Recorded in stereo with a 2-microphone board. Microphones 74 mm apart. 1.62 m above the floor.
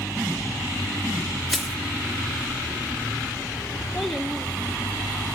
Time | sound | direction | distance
1.5 | crushing | centre (ahead or behind) | 0.9 m
3.9 | a child speaking | 5° left (ahead or behind) | 2.5 m